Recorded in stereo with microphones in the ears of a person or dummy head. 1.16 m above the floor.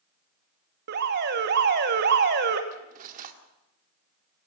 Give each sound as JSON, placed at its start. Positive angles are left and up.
{"t": 0.9, "sound": "an alarm", "side_deg": -55, "distance_m": 1.9}
{"t": 2.7, "sound": "cutlery clinking", "side_deg": -50, "distance_m": 1.9}